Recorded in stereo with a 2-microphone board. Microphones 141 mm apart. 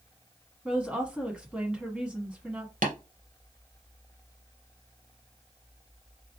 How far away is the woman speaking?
About 1.2 m.